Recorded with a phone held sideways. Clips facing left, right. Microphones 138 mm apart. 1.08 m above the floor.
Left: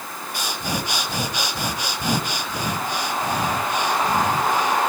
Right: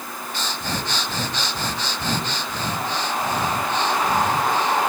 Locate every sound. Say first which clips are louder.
0.3 s breathing: left 1 dB; 10° left (ahead or behind), 1.8 m